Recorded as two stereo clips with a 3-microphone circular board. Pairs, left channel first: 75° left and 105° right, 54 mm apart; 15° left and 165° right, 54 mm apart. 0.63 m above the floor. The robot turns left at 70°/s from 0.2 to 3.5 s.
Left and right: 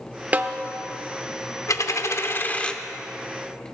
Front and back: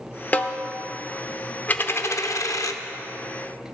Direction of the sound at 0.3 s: 45° right.